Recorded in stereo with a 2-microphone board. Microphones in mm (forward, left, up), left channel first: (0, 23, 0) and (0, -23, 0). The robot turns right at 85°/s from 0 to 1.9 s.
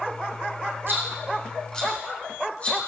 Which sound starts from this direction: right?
A rattle, at 0.9 s.